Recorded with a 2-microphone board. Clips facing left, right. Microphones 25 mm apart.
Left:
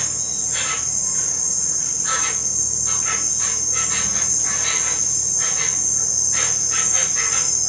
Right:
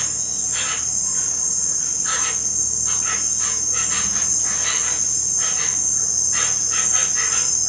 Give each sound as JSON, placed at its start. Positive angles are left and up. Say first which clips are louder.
{"t": 0.0, "sound": "an insect", "louder": "even", "side_deg": 10, "distance_m": 1.8}